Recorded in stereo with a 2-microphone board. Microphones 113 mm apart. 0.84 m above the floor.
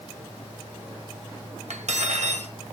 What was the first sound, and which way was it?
Cutlery clinking, 80° right.